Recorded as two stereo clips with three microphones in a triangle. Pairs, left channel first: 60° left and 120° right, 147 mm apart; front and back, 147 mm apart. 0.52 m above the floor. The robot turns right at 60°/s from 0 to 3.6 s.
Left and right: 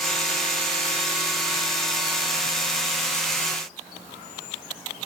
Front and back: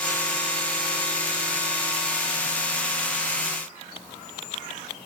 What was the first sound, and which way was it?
Only background noise.